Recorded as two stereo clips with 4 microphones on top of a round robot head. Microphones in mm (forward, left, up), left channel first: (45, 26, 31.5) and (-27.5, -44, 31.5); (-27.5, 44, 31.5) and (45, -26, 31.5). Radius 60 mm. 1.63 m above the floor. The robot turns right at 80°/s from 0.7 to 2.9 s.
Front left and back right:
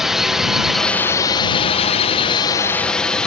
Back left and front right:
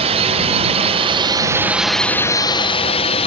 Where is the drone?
50° right; by 3.3 s 125° left.